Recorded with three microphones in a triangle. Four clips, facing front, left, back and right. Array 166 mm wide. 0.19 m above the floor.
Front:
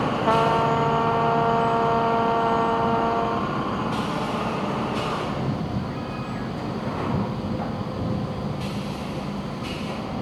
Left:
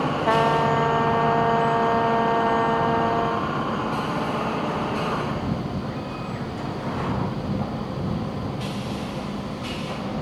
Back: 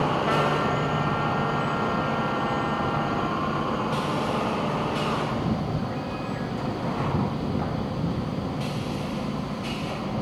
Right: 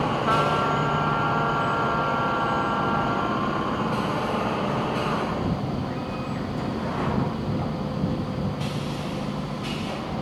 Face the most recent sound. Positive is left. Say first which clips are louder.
# left 5 dB, front 4 dB
turn(degrees=45)